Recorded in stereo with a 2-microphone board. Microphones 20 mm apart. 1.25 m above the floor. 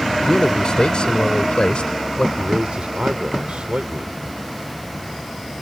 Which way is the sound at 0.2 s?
35° left (ahead or behind).